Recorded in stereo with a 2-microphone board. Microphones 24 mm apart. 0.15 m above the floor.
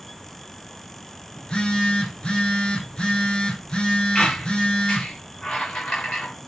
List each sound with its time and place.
1.4 s a phone buzzing: 50° left (ahead or behind), 5 m
4.2 s a squeak: 70° left (ahead or behind), 6.5 m